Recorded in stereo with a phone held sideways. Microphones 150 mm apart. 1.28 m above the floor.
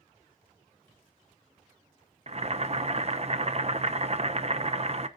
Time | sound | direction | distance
2.3 | boiling | 45° right (ahead or behind) | 0.8 m